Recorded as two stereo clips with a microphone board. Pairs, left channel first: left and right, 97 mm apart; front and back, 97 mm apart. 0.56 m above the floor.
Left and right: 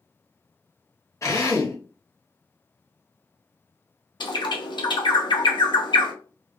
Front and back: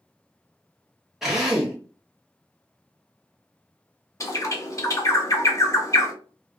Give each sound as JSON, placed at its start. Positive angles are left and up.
{"t": 1.2, "sound": "a drill", "azimuth_deg": 100, "distance_m": 0.9}
{"t": 4.2, "sound": "a bird", "azimuth_deg": 55, "distance_m": 0.6}